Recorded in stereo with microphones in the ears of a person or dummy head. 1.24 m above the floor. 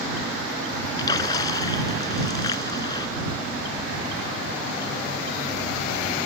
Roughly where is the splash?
Left.